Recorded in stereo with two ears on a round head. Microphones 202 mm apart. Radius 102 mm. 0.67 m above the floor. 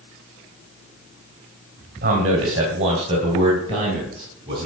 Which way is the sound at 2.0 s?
35° right (ahead or behind).